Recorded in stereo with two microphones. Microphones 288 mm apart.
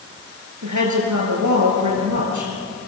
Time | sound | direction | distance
0.6 | a woman speaking | 80° right | 6 m